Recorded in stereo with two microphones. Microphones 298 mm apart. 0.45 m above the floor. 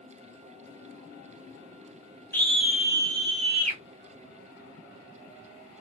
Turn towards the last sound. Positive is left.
turn(degrees=-25)  # may be behind; listen again after turning